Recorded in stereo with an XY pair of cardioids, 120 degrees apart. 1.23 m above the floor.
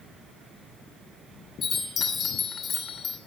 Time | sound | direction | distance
1.6 | a chime | 50° left | 3 m